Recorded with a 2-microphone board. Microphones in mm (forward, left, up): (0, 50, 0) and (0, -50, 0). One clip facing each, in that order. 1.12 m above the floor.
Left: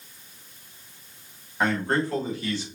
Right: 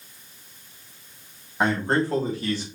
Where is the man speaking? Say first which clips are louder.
Right 2 dB; 20° right (ahead or behind), 2 m; by 2.6 s 45° right (ahead or behind), 2.0 m.